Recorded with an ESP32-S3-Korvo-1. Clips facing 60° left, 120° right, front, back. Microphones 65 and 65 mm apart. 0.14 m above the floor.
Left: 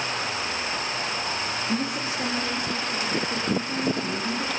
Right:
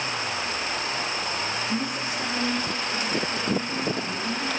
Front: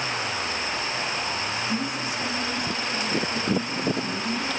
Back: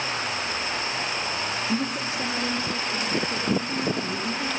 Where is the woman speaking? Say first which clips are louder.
Left 1 dB, back 1 dB; 125° left, 6 m; by 4.5 s 130° left, 10 m.